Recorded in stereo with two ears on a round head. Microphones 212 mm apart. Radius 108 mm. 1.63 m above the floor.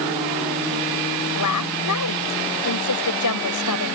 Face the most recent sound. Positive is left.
turn(degrees=85)